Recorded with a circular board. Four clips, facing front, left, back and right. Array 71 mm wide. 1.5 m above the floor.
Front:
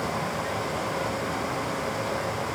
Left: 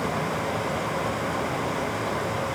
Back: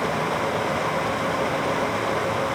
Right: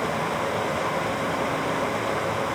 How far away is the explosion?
No explosion in this recording.